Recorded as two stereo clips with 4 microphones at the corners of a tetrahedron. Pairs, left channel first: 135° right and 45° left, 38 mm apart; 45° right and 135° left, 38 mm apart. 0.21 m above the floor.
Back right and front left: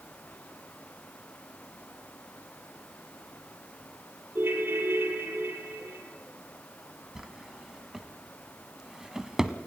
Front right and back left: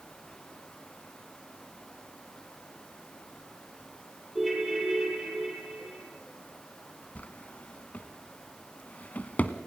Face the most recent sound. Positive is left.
turn(degrees=-25)